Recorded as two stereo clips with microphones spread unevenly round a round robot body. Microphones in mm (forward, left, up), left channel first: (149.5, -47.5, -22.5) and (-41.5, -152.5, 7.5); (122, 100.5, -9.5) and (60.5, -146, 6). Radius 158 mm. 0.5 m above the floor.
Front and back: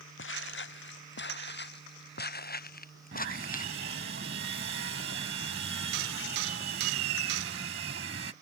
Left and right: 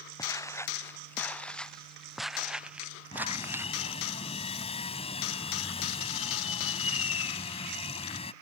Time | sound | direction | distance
0.2 | footsteps | straight ahead | ?
3.1 | sawing | 150° left | ?